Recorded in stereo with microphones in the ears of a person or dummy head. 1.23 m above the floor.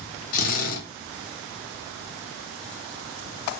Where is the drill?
50° left (ahead or behind), 1.1 m.